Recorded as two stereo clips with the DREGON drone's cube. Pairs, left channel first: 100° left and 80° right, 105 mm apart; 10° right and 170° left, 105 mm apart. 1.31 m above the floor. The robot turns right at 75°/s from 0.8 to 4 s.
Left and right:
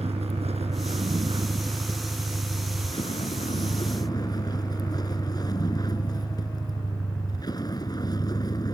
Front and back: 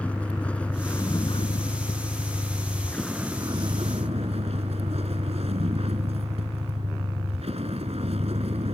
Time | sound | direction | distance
0.0 | a vehicle | 85° right | ?